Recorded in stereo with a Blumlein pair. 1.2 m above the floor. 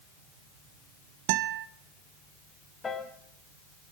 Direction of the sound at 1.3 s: 45° right.